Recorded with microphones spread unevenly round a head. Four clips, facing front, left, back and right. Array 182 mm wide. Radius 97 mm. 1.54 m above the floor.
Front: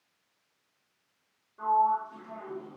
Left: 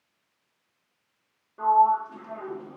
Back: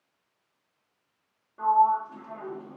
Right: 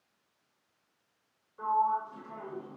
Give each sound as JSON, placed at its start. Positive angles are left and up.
{"t": 1.6, "sound": "a sliding door", "azimuth_deg": 120, "distance_m": 2.0}